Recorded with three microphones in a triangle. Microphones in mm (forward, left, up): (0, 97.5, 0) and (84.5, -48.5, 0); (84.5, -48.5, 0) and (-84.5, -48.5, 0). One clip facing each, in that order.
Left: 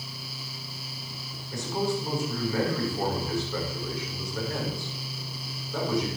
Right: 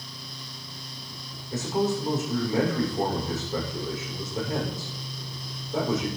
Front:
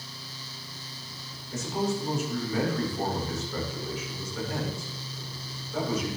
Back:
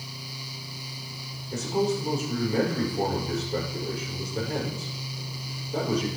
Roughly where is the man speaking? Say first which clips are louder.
Right 3 dB, back 4 dB; behind right.